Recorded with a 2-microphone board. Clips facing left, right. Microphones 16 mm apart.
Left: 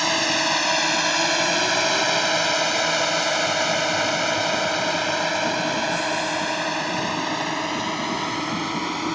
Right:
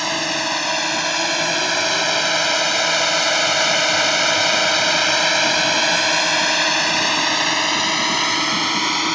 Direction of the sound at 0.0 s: Centre (ahead or behind).